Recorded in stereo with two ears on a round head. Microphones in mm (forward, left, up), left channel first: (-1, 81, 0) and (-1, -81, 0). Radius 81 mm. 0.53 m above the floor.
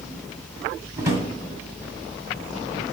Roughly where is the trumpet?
No trumpet in this recording.